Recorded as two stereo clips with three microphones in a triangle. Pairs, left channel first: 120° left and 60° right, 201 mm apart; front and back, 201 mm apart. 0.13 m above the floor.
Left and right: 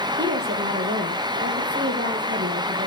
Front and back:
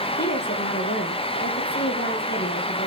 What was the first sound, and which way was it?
A woman speaking, 30° right.